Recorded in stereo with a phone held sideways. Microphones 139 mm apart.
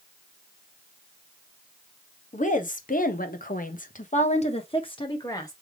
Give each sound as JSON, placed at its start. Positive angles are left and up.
{"t": 2.3, "sound": "a woman speaking", "side_deg": 60, "distance_m": 1.3}